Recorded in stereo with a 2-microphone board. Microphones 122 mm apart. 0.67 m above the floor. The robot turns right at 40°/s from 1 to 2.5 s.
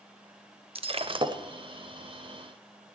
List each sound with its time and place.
0.8 s breaking glass: 50° right (ahead or behind), 0.7 m; by 1.4 s 35° right (ahead or behind), 0.7 m